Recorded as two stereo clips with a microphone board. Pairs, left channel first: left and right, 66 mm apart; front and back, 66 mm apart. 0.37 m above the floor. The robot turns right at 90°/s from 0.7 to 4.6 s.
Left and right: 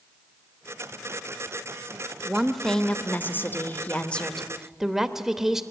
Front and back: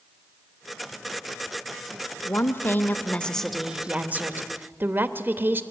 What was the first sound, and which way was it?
A woman speaking, 25° right.